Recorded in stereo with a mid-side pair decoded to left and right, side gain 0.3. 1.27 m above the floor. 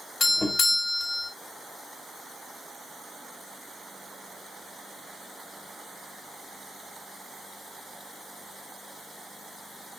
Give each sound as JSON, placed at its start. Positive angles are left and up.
{"t": 0.2, "sound": "a doorbell", "azimuth_deg": 50, "distance_m": 1.9}